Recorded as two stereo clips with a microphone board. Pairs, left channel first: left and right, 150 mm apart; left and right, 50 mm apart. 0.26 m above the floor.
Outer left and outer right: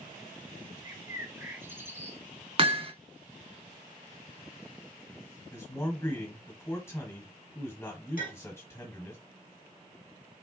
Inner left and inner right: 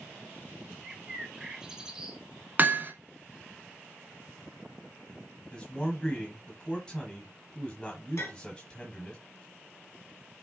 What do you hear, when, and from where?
0.8 s a bird: 15° right (ahead or behind), 0.7 m
2.6 s hammering: 40° right (ahead or behind), 0.5 m
5.5 s a man speaking: 15° left (ahead or behind), 1.4 m
8.2 s a clink: 70° left (ahead or behind), 3 m